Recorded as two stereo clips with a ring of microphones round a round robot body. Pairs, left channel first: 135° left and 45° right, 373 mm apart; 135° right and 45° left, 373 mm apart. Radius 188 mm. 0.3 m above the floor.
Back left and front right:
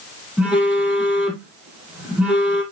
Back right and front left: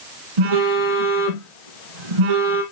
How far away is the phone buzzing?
About 2.5 m.